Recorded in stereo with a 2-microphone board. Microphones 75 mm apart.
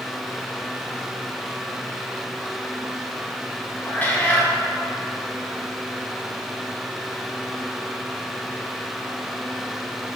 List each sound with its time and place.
3.9 s a cat meowing: 25° left (ahead or behind), 2.5 m